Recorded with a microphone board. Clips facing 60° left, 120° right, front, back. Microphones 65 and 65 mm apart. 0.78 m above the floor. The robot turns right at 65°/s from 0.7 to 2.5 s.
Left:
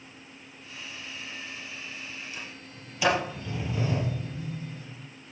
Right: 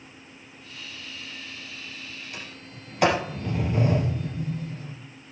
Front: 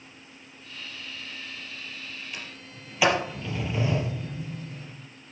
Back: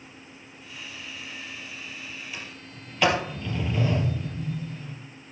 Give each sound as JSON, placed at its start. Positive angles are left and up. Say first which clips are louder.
{"t": 2.3, "sound": "a sliding door", "louder": "right 1 dB, back 1 dB", "azimuth_deg": -90, "distance_m": 3.5}